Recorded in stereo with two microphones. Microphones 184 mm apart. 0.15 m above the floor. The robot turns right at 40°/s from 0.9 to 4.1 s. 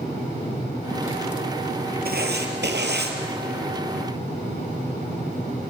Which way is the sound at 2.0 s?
115° right.